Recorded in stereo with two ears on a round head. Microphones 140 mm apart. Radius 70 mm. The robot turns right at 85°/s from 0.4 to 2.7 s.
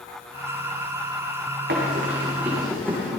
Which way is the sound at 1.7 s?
75° right (ahead or behind).